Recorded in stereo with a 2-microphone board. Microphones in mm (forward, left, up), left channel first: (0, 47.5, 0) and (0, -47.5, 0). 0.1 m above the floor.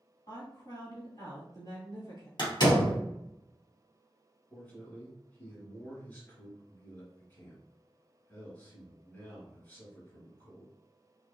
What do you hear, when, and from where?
0.3 s a woman speaking: 40° left (ahead or behind), 1.8 m
2.4 s a door slam: 50° left (ahead or behind), 1.9 m
4.5 s a man speaking: 20° left (ahead or behind), 1.9 m